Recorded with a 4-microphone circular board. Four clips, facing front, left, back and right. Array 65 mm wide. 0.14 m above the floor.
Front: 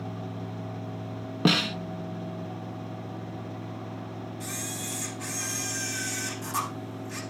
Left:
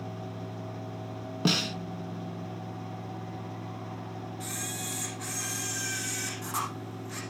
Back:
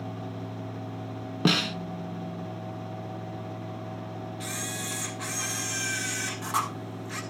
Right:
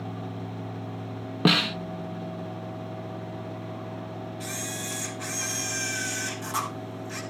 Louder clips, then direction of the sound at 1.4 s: Right 6 dB, front 1 dB; 85° right.